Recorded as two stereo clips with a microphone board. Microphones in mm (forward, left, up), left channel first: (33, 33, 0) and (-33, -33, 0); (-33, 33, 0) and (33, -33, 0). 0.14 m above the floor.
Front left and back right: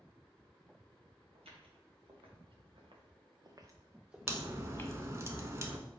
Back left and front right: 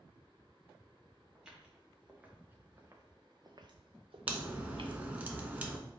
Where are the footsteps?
130° right, 2 m; by 5.0 s 20° right, 0.9 m.